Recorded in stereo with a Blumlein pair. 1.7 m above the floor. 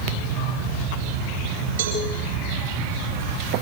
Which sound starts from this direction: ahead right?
A cowbell, at 1.8 s.